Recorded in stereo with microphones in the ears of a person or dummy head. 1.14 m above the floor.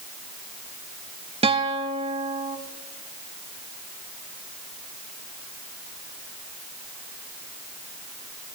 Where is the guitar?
25° right (ahead or behind), 1.1 m.